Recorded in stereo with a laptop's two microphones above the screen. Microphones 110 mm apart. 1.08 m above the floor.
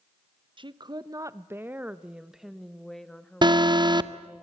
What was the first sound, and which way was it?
A woman speaking, 45° right (ahead or behind).